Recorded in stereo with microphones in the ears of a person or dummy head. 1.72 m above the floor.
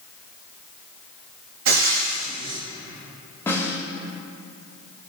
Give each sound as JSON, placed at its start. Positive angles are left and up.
{"t": 1.6, "sound": "frying", "side_deg": -80, "distance_m": 4.0}
{"t": 3.5, "sound": "a snare drum", "side_deg": 15, "distance_m": 3.5}